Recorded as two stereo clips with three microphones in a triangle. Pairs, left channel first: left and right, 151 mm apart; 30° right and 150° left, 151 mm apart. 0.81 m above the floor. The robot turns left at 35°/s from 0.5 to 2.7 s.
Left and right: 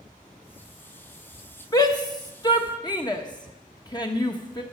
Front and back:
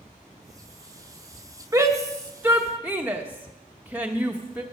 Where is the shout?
120° left, 1.0 m; by 4.6 s 85° left, 1.0 m.